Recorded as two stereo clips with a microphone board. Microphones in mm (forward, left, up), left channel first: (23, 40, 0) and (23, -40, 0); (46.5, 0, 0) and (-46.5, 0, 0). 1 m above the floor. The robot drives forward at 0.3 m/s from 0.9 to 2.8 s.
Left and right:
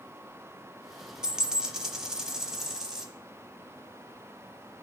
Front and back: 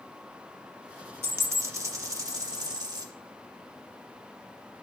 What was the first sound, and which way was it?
A dropped coin, 160° right.